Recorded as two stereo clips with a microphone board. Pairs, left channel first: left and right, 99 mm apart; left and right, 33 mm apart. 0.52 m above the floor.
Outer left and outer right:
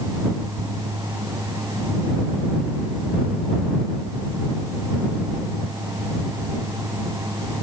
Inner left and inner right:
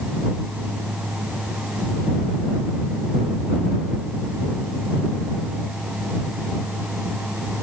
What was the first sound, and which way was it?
Only background noise.